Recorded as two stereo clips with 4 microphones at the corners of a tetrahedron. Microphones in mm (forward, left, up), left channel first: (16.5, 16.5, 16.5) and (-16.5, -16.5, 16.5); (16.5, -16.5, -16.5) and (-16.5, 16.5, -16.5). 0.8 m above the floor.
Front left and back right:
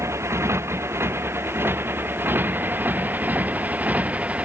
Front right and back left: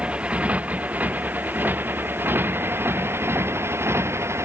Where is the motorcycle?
160° right; by 4.5 s 165° left.